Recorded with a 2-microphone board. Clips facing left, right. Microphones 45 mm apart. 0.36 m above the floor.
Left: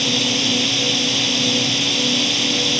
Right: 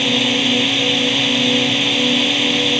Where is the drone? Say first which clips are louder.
Right 4 dB; 30° right (ahead or behind).